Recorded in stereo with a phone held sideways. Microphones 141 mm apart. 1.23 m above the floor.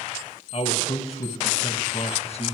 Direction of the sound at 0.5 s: 45° left (ahead or behind).